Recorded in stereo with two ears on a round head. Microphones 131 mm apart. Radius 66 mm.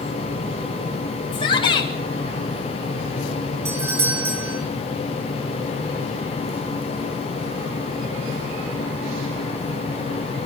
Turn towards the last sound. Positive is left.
turn(degrees=-20)  # may be behind; listen again after turning